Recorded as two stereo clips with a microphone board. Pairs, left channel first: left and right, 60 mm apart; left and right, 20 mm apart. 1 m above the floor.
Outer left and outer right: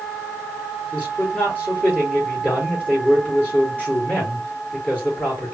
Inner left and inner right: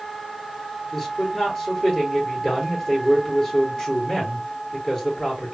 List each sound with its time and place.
0.9 s a man speaking: 25° left (ahead or behind), 3 m